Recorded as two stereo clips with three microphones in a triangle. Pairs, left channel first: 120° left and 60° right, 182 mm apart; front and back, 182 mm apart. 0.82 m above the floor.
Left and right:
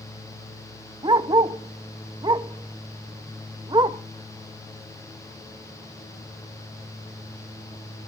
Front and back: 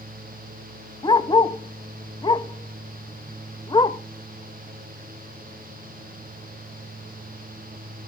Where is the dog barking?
30° right, 0.5 m.